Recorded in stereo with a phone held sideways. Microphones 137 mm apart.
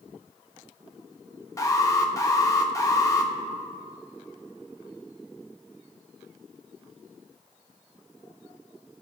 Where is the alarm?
25° left (ahead or behind), 1.1 m.